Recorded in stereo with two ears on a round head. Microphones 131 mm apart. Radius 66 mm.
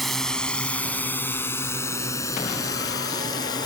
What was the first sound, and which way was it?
A drone, centre (ahead or behind).